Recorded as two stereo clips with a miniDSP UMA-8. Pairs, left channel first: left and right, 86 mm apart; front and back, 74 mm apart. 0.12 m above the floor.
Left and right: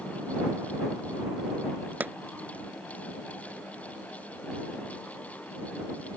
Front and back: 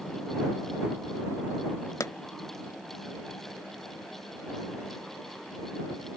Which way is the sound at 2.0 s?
25° right.